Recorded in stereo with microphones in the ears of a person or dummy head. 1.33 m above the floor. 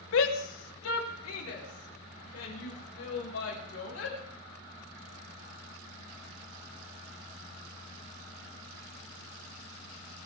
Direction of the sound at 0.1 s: 75° left (ahead or behind).